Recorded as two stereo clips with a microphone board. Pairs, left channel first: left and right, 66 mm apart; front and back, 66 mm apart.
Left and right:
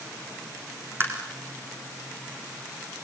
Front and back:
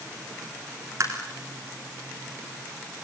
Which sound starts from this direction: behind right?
Tapping, at 1.0 s.